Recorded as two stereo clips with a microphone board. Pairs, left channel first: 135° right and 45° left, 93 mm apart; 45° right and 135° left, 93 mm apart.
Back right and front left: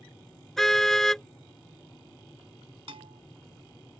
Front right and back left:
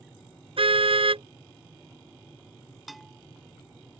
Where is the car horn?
140° left.